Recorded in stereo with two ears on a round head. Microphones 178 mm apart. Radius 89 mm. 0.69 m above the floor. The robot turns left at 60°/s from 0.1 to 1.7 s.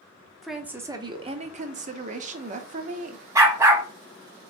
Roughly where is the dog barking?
Centre.